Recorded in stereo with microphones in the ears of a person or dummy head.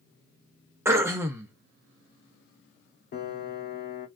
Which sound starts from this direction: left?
A piano, at 3.1 s.